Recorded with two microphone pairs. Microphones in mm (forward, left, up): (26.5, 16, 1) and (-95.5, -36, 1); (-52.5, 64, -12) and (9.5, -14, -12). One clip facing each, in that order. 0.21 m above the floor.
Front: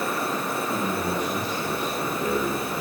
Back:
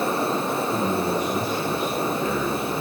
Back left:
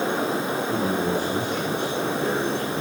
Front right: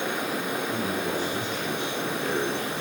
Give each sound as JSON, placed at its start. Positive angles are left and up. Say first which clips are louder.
{"t": 0.7, "sound": "a man speaking", "louder": "back 3 dB, back left 5 dB", "azimuth_deg": 95, "distance_m": 8.5}